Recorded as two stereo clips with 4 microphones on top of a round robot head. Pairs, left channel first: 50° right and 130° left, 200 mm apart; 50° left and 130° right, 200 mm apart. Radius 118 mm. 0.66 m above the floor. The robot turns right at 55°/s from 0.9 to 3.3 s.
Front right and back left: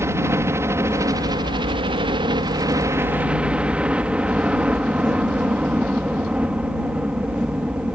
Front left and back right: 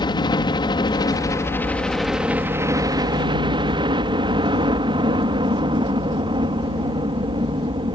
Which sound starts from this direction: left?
A helicopter, at 0.0 s.